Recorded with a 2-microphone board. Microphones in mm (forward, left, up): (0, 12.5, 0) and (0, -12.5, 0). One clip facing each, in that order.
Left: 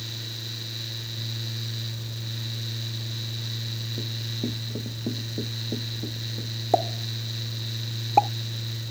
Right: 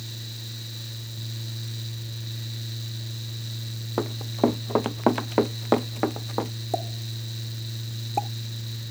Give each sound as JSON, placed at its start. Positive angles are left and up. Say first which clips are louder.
{"t": 4.0, "sound": "running footsteps", "louder": "right 11 dB", "side_deg": -80}
{"t": 6.7, "sound": "a pop", "louder": "left 7 dB", "side_deg": 30}